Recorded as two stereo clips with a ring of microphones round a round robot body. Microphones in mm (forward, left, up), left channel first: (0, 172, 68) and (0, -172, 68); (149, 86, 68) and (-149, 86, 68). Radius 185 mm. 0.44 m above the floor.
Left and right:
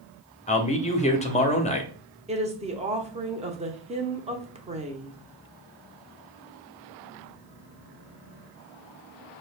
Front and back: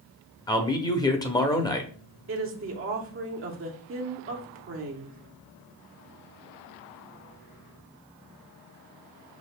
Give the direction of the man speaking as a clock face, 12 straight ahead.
10 o'clock.